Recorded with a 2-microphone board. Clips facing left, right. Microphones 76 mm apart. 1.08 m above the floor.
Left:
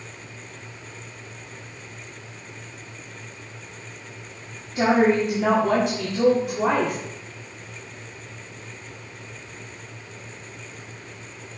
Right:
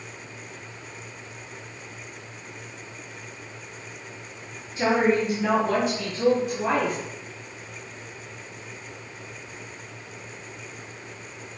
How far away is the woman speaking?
About 3.5 m.